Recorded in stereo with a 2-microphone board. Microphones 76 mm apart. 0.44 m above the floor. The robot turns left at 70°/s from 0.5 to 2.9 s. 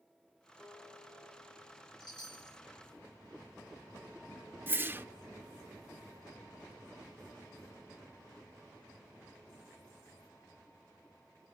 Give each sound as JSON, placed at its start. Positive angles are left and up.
{"t": 0.6, "sound": "a guitar", "azimuth_deg": -25, "distance_m": 9.0}
{"t": 2.0, "sound": "a chime", "azimuth_deg": 100, "distance_m": 2.5}
{"t": 4.7, "sound": "a whoosh", "side_deg": -25, "distance_m": 0.5}